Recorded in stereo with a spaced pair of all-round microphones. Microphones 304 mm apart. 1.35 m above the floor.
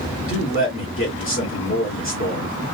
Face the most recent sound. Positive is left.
turn(degrees=40)  # may be behind; listen again after turning